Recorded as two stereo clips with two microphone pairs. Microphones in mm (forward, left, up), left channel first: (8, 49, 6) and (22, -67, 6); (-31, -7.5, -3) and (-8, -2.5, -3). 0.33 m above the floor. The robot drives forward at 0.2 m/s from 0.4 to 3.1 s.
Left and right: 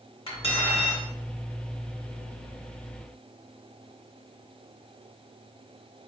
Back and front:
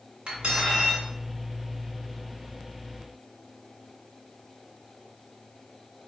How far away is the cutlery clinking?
About 2 m.